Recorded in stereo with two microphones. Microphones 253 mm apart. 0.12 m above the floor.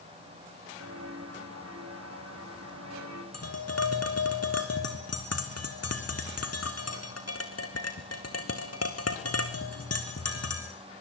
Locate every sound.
0.8 s footsteps: 75° right (ahead or behind), 6 m; by 3.2 s 90° right, 6 m
3.3 s tapping: 70° left (ahead or behind), 2.5 m